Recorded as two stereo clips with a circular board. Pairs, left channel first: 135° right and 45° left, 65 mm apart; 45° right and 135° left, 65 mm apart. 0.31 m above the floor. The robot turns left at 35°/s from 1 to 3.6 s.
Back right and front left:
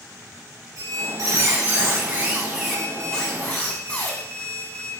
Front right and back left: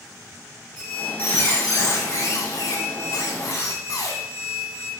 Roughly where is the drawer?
No drawer in this recording.